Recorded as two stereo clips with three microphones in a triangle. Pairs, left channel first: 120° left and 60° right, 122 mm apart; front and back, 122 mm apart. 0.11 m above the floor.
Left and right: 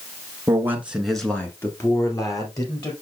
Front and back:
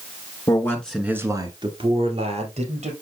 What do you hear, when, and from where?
0.5 s a man speaking: 20° right, 1.4 m; by 2.9 s 175° left, 3.5 m